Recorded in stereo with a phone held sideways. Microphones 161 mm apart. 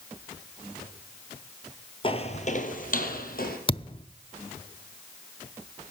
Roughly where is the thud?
Left.